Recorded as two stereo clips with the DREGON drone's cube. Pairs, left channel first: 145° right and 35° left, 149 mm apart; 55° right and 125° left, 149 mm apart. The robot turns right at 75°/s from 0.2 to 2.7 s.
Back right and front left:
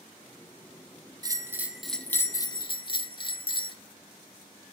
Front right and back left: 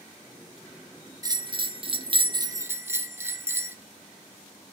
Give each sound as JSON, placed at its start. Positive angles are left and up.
{"t": 1.2, "sound": "a bell", "azimuth_deg": 75, "distance_m": 0.5}